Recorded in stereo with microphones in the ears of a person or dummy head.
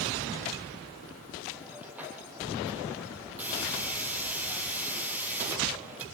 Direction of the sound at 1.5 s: 5° right (ahead or behind).